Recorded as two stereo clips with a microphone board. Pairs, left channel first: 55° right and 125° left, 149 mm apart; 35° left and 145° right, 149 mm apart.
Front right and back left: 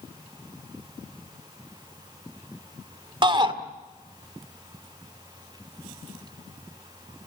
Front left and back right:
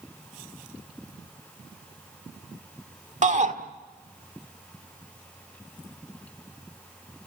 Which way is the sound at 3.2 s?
Straight behind.